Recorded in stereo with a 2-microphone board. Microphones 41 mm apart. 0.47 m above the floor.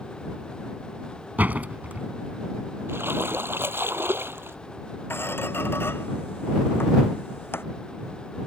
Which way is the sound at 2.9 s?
75° right (ahead or behind).